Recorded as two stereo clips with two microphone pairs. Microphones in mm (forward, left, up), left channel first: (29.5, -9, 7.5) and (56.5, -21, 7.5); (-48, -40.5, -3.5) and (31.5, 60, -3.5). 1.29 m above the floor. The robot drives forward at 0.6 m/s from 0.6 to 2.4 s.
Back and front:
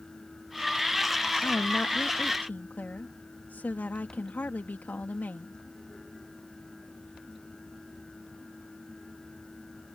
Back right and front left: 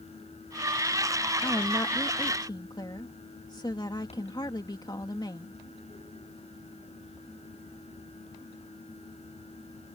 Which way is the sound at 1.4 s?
170° left.